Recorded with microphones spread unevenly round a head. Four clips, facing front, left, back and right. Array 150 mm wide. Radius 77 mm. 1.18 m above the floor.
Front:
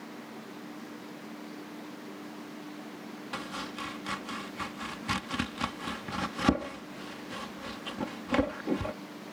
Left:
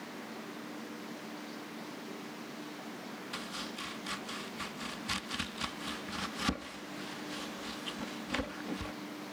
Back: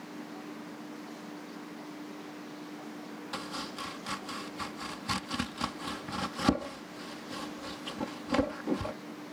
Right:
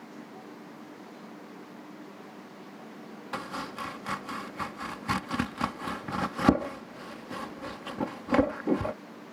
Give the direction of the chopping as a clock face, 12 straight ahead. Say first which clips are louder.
Right 10 dB, front 1 dB; 3 o'clock.